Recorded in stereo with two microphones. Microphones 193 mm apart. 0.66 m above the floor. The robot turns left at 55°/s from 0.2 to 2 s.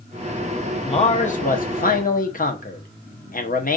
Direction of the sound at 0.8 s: 140° left.